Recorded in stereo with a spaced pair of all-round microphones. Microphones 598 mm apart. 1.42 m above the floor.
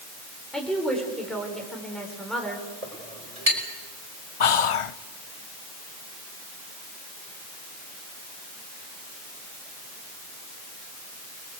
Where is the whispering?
60° left (ahead or behind), 0.6 m.